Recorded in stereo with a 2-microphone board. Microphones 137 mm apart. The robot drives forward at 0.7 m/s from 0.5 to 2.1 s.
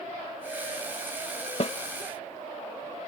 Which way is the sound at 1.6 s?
50° left (ahead or behind).